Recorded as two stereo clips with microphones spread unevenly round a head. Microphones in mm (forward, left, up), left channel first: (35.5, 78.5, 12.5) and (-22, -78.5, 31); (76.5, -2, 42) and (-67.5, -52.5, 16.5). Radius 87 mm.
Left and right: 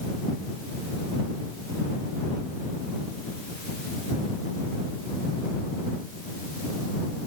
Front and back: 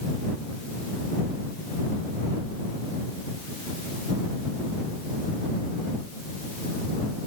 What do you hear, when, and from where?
Only background noise.